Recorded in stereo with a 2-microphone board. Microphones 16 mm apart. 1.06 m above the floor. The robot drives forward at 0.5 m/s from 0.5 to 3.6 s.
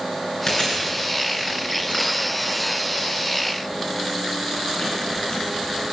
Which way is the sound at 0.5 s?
50° left (ahead or behind).